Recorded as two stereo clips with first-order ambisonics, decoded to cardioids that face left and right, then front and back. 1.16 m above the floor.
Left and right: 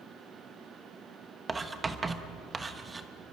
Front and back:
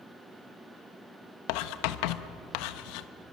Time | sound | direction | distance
1.5 | writing | 15° right | 1.1 m